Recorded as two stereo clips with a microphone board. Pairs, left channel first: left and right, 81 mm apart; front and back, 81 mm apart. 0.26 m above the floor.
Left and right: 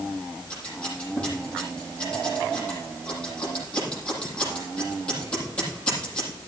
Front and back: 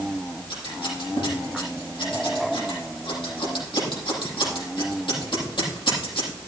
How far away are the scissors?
About 8.5 m.